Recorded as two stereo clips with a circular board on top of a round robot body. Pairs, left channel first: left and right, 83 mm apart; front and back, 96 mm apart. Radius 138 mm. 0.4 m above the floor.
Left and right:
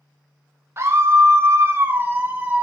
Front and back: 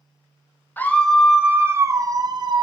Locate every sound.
0.8 s a scream: 55° right, 1.3 m; by 2.6 s 160° right, 1.8 m